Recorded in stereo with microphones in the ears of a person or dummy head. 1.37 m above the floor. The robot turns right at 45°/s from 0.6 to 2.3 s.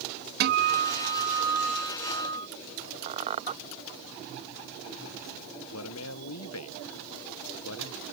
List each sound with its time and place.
0.4 s a guitar: 55° right; by 2.5 s 20° left
3.1 s a squeak: 30° right (ahead or behind)
5.7 s a man speaking: 65° left (ahead or behind)